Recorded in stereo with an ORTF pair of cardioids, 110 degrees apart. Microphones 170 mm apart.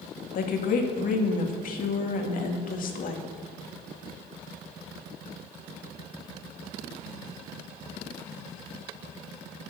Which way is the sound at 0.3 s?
55° left.